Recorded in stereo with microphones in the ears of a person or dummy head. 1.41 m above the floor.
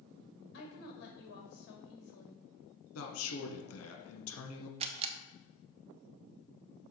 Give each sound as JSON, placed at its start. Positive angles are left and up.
{"t": 0.5, "sound": "a woman speaking", "side_deg": 60, "distance_m": 2.5}
{"t": 3.0, "sound": "a man speaking", "side_deg": 75, "distance_m": 1.4}
{"t": 4.8, "sound": "a camera shutter", "side_deg": -30, "distance_m": 0.7}